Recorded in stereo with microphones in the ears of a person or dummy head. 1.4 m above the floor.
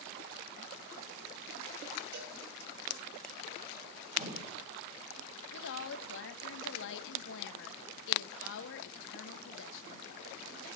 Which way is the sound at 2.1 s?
50° right (ahead or behind).